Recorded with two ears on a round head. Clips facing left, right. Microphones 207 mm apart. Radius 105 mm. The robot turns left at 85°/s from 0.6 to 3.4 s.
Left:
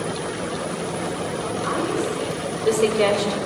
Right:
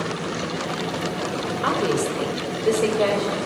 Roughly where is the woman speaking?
Right.